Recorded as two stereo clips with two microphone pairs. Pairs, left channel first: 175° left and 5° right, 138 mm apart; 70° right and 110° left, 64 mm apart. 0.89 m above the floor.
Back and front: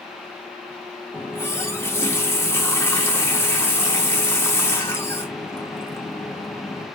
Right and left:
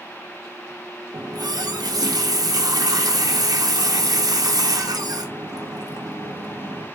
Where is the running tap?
105° left, 0.8 m.